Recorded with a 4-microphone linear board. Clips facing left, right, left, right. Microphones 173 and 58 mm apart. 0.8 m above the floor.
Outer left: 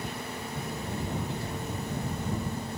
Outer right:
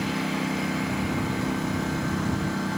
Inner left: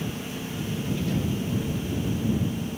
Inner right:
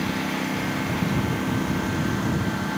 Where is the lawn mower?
80° right; by 2.8 s 75° right (ahead or behind).